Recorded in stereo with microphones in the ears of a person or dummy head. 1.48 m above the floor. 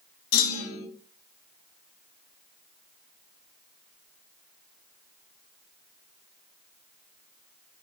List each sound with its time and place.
0.3 s a clunk: 75° left (ahead or behind), 2 m